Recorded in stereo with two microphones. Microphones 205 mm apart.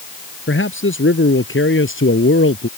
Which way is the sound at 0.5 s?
75° left (ahead or behind).